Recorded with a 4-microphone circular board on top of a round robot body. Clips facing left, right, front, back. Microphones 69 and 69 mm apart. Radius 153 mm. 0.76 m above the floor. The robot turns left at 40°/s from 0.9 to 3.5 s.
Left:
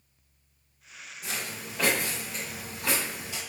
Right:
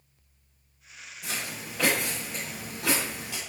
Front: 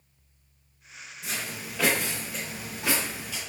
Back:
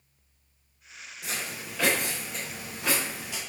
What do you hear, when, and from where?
1.2 s footsteps: 130° left, 1.0 m; by 3.4 s 105° right, 1.2 m